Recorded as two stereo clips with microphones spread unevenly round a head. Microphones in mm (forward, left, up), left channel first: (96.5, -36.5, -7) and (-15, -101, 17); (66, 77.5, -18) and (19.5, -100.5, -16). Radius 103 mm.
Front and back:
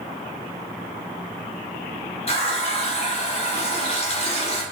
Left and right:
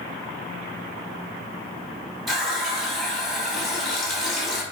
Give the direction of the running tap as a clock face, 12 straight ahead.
12 o'clock.